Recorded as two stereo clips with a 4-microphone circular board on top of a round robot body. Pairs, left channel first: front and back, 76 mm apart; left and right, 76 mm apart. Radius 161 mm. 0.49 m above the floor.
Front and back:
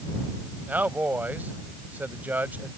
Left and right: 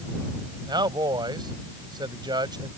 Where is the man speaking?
110° right.